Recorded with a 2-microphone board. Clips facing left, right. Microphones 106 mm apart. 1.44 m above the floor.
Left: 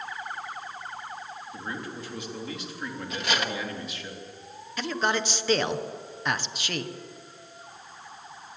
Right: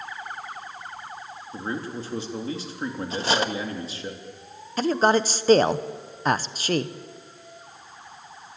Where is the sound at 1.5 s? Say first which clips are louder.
Right 7 dB; 35° right (ahead or behind), 3.5 m.